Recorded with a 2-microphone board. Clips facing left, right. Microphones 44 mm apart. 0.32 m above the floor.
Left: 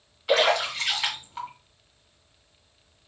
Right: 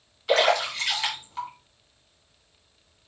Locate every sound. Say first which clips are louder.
0.3 s a splash: even; 10° left (ahead or behind), 2.5 m